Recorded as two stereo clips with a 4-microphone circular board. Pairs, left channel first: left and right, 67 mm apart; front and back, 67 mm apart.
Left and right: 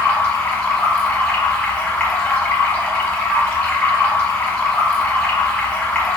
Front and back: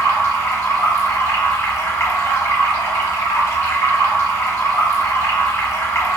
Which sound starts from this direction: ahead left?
Running water, at 0.0 s.